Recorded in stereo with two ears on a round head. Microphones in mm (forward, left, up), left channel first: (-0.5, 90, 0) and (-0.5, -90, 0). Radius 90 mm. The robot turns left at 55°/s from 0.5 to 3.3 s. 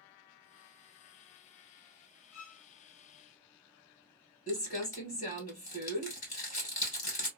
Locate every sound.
2.3 s a violin: 75° left (ahead or behind), 1.1 m; by 2.6 s 60° left (ahead or behind), 1.1 m
4.5 s crumpling: 40° left (ahead or behind), 1.9 m